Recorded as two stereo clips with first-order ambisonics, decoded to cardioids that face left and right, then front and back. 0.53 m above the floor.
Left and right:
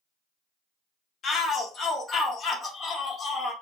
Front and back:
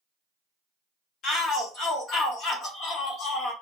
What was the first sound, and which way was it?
A shout, 40° left.